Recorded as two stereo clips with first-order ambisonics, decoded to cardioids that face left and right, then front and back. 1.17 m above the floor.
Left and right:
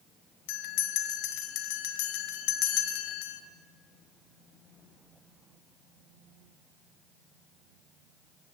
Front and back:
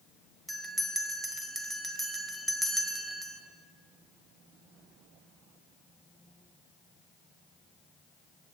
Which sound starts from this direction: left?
A bell, at 0.5 s.